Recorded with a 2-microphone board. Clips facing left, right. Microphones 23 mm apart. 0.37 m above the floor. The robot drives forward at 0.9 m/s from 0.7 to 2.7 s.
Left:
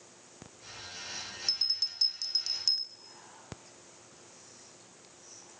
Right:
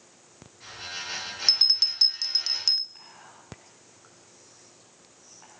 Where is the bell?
50° right (ahead or behind), 0.6 m; by 2.9 s 20° right (ahead or behind), 1.2 m.